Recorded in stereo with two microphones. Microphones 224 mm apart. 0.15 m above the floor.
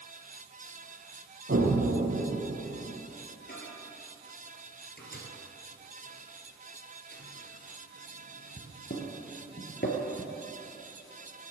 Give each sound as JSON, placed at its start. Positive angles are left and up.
{"t": 1.5, "sound": "an explosion", "side_deg": -55, "distance_m": 2.5}
{"t": 3.5, "sound": "a microwave", "side_deg": 45, "distance_m": 2.5}